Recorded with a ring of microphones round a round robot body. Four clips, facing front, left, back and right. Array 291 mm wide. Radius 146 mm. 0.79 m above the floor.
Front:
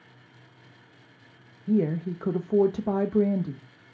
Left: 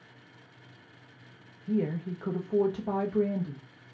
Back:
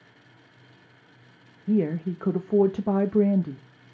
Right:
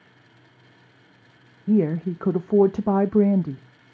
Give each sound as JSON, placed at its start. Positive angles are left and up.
{"t": 1.7, "sound": "a woman speaking", "azimuth_deg": -95, "distance_m": 0.6}